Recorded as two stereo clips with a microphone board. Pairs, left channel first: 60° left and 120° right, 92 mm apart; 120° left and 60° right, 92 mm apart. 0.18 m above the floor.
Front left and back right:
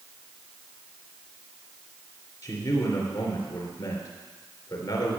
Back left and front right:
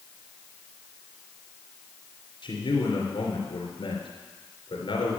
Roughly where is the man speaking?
Left.